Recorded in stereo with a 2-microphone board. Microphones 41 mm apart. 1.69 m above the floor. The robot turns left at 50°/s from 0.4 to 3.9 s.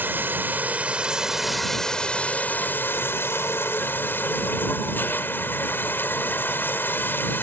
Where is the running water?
120° right; by 7.4 s 65° left.